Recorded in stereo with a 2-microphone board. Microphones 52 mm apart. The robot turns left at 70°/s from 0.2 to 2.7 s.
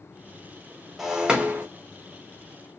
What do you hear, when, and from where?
1.0 s breaking glass: 5° right, 0.9 m; by 1.7 s 50° right, 0.9 m